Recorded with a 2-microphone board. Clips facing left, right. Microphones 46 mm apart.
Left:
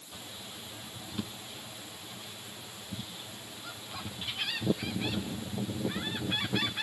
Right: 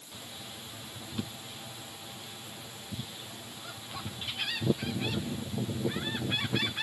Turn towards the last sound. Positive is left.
No sound to turn to.